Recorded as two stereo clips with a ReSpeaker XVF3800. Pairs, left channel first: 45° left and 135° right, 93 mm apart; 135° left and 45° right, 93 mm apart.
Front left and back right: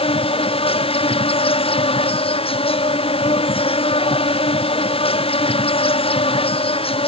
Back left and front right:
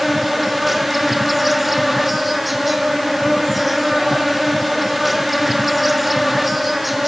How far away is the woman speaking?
I don't hear a woman speaking.